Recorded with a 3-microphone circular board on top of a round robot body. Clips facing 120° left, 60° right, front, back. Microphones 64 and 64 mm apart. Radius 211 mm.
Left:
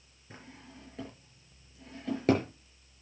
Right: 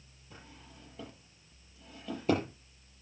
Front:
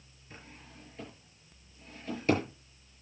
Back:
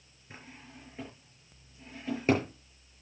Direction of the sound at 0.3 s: 115° left.